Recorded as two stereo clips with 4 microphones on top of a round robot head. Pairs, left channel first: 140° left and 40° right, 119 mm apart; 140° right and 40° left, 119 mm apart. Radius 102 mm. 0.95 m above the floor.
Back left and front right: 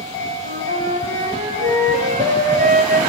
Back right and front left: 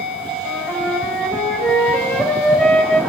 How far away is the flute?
About 2.5 m.